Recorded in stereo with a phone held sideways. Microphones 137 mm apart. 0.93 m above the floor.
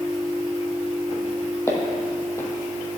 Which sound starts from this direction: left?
Footsteps, at 1.7 s.